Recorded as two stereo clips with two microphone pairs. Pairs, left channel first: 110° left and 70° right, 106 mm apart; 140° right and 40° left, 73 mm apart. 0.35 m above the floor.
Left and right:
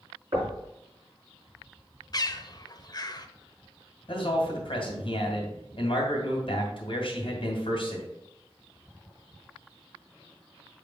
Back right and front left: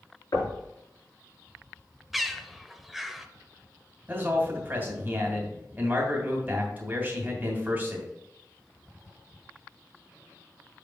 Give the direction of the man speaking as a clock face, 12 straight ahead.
9 o'clock.